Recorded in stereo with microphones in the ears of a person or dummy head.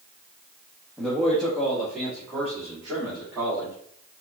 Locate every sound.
1.0 s a man speaking: 5° left (ahead or behind), 1.2 m; by 3.7 s 5° right (ahead or behind), 3.5 m